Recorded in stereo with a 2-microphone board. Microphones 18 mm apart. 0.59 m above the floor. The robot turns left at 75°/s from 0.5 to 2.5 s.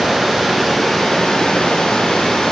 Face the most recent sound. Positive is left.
turn(degrees=60)